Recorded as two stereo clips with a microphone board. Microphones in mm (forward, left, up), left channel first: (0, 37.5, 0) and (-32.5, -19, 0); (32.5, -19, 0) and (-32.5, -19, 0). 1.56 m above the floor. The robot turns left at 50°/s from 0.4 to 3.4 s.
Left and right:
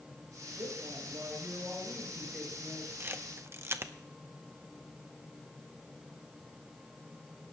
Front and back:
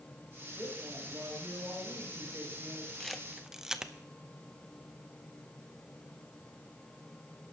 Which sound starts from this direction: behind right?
A woman speaking, at 0.6 s.